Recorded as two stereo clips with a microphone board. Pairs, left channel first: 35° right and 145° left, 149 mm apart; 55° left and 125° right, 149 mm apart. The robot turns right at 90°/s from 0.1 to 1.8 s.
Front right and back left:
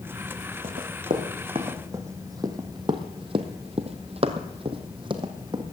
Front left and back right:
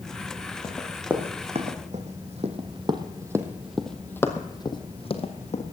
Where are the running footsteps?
120° left, 3.5 m; by 5.6 s 85° left, 2.5 m.